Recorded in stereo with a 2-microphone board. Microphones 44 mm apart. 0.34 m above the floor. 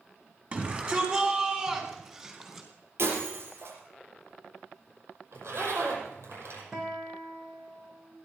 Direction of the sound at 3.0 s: 60° right (ahead or behind).